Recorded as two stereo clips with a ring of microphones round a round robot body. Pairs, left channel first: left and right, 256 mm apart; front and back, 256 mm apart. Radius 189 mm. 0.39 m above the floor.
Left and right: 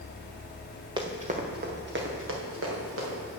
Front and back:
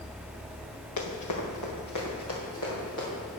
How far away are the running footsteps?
About 2 m.